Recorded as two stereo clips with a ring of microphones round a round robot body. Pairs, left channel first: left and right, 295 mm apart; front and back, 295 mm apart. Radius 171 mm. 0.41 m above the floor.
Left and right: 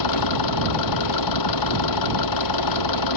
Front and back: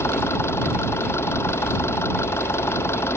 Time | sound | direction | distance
0.0 | an engine running | 85° left | ?